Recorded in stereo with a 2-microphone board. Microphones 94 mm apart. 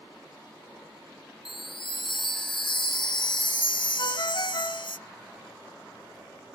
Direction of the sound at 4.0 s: 60° left (ahead or behind).